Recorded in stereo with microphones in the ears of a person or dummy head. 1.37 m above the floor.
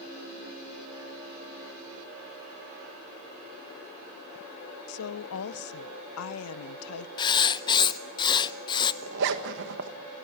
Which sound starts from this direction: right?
A zipper, at 9.0 s.